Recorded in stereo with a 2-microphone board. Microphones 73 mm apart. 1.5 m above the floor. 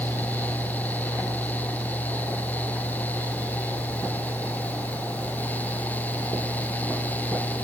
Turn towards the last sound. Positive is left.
No sound to turn to.